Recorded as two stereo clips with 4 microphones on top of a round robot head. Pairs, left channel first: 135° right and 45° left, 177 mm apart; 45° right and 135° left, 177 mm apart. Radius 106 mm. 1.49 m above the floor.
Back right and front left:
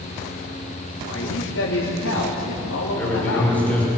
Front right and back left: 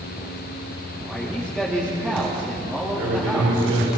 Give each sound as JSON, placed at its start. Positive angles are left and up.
{"t": 1.0, "sound": "a man speaking", "azimuth_deg": -140, "distance_m": 3.0}
{"t": 3.0, "sound": "a man speaking", "azimuth_deg": 145, "distance_m": 6.0}